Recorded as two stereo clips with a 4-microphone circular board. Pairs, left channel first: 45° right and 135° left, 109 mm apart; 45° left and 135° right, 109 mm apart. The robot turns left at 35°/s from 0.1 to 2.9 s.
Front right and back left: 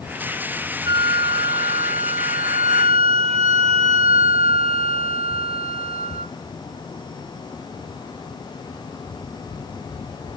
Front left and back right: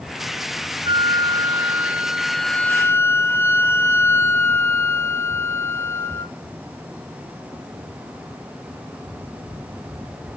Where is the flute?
175° right, 0.6 m; by 6.3 s 110° left, 0.6 m.